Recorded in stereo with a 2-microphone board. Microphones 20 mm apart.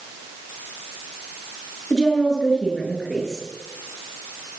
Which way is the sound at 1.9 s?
25° left (ahead or behind).